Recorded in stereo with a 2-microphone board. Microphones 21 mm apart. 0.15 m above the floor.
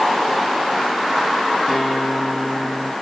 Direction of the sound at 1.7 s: 10° left (ahead or behind).